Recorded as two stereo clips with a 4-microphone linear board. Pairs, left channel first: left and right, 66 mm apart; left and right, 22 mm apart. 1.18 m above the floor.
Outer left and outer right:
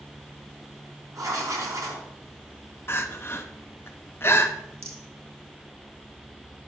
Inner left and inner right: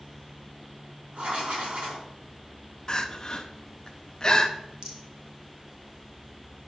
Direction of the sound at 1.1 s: 55° right (ahead or behind).